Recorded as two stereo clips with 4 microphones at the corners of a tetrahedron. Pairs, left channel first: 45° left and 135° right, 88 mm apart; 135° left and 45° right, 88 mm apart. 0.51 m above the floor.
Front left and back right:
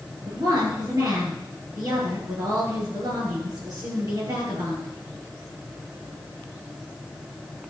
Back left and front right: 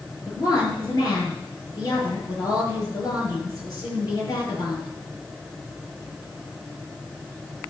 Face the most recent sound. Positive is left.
turn(degrees=180)